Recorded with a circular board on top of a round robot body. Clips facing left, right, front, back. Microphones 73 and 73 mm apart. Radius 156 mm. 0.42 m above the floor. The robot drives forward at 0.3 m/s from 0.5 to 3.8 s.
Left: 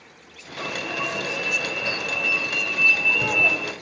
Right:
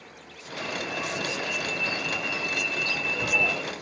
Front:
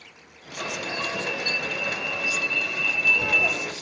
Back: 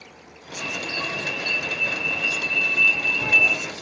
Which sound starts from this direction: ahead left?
An alarm, at 0.6 s.